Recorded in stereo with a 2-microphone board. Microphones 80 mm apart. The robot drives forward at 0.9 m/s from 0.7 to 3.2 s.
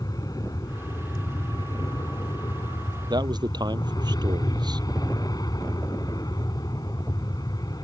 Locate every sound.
0.0 s an aircraft: 50° left (ahead or behind); by 7.8 s 55° left (ahead or behind)
3.1 s a man speaking: 65° right (ahead or behind)